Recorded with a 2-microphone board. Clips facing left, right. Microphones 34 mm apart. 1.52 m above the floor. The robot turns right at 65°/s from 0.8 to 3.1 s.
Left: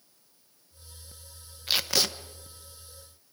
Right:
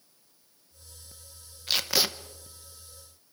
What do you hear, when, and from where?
1.7 s tape being pulled: 15° left (ahead or behind), 1.0 m; by 2.1 s 15° right (ahead or behind), 1.0 m